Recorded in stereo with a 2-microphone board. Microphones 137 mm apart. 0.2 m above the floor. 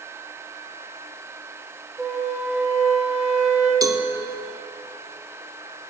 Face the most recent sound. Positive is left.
turn(degrees=-30)  # may be behind; listen again after turning